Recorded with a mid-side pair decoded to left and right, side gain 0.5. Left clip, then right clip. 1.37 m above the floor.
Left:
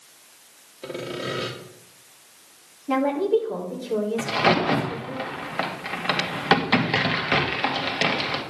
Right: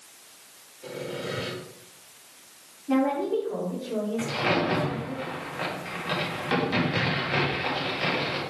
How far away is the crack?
About 2.5 m.